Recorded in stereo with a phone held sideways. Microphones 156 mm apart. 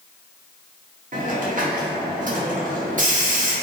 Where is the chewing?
I don't hear chewing.